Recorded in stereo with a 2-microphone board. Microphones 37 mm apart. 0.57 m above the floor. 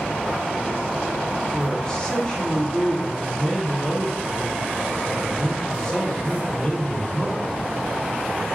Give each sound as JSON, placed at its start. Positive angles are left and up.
{"t": 1.5, "sound": "a man speaking", "side_deg": 20, "distance_m": 1.2}